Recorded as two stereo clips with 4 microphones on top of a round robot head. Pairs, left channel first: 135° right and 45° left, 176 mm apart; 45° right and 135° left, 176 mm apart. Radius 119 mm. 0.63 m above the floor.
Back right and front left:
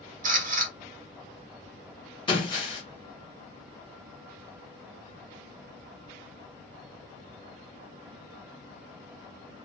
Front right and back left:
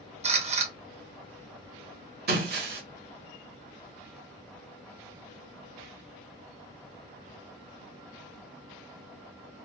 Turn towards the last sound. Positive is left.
turn(degrees=160)